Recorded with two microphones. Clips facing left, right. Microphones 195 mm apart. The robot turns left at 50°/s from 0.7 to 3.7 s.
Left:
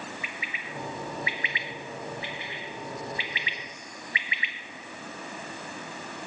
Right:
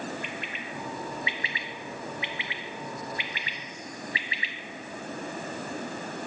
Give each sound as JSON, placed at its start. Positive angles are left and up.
{"t": 0.2, "sound": "a bird", "side_deg": 5, "distance_m": 0.7}